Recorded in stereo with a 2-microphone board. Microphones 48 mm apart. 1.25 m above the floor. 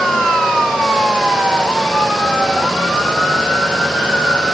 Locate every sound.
Only background noise.